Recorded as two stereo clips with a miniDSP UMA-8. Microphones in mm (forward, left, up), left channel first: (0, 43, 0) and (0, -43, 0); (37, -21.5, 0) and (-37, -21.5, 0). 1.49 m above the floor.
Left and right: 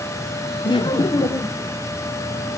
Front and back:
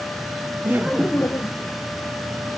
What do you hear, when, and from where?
0.6 s laughter: 125° left, 0.6 m; by 1.7 s 40° left, 0.9 m